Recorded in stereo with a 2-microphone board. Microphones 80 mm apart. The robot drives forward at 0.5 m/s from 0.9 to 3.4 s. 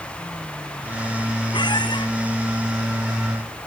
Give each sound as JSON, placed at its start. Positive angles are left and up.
{"t": 1.5, "sound": "a squeak", "side_deg": 70}